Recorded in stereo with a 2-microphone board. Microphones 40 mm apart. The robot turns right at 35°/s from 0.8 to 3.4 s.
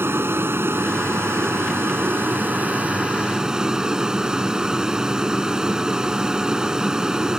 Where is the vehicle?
110° right; by 7.4 s 15° right.